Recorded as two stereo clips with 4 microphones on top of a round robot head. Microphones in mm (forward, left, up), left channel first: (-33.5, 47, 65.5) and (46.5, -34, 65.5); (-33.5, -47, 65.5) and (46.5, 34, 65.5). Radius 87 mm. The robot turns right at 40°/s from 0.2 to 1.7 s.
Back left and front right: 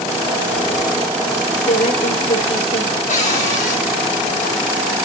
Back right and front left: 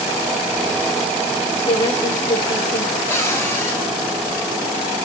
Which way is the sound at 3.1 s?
155° left.